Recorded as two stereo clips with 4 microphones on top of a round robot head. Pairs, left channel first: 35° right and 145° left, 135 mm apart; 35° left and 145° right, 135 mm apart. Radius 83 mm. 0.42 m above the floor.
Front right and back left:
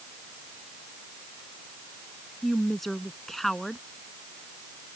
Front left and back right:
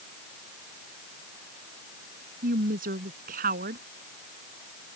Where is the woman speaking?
125° right.